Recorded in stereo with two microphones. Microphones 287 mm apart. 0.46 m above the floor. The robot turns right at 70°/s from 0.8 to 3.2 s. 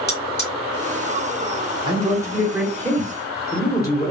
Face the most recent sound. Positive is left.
turn(degrees=15)  # may be behind; listen again after turning